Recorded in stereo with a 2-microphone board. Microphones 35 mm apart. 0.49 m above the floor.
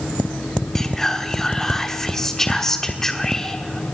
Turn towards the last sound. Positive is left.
turn(degrees=15)  # may be behind; listen again after turning